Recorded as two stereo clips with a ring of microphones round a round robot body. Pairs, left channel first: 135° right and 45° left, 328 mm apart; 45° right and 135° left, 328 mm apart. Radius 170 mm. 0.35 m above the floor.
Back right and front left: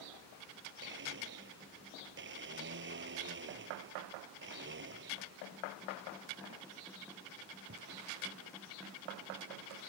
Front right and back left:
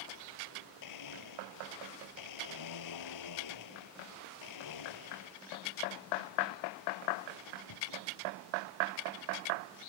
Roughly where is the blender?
Ahead.